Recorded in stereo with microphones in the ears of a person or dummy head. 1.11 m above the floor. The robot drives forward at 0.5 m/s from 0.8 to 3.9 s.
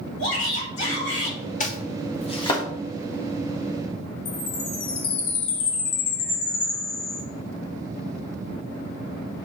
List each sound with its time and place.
0.2 s a shout: 85° left, 4 m; by 1.4 s 80° left, 4 m
1.6 s chopping: 45° left (ahead or behind), 0.9 m; by 2.6 s 30° left (ahead or behind), 1.3 m
4.2 s a chime: 85° left, 3 m